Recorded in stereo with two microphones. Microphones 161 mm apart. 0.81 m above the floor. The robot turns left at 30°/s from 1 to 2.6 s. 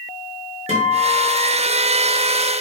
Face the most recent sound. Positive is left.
turn(degrees=180)